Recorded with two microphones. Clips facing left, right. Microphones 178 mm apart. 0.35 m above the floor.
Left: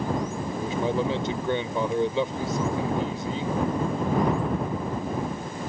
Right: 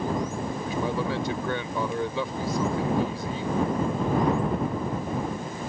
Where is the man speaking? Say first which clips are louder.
Left 4 dB; 25° left (ahead or behind).